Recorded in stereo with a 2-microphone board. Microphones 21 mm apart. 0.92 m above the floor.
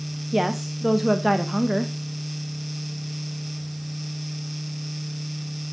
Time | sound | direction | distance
0.3 | a woman speaking | 10° right (ahead or behind) | 0.7 m